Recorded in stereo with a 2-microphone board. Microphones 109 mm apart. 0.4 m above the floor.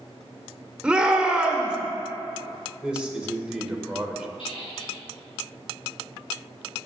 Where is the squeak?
55° left (ahead or behind), 4 m.